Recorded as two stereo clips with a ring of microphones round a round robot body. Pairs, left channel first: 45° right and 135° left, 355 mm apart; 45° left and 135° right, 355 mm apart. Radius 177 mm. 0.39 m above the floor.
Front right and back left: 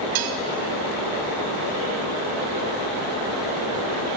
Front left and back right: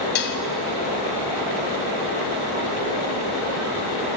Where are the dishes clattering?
105° left, 1.7 m.